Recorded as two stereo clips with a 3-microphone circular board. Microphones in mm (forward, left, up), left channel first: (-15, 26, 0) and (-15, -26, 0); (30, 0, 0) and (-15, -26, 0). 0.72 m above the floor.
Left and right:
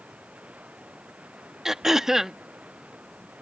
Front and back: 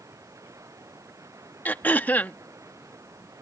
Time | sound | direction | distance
0.0 | running water | 155° right | ?
1.6 | throat clearing | 10° right | ?